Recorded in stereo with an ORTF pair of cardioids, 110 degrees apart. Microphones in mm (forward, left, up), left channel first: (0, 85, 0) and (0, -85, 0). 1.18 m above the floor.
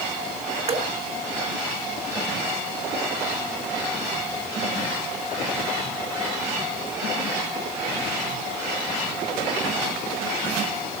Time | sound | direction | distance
0.7 | dripping | 40° right | 1.1 m